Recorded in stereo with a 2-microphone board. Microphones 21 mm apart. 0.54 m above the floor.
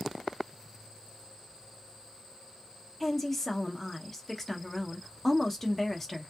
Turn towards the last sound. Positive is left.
turn(degrees=5)  # may be behind; listen again after turning